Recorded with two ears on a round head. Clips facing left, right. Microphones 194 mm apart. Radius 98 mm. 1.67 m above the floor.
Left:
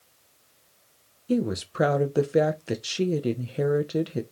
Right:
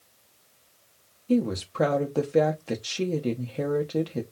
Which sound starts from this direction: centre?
A woman speaking, at 1.3 s.